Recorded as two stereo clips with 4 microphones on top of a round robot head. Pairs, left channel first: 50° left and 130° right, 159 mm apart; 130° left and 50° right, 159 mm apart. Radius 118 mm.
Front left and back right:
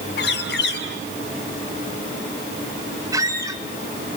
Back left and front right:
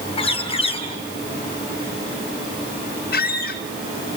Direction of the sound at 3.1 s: 160° left.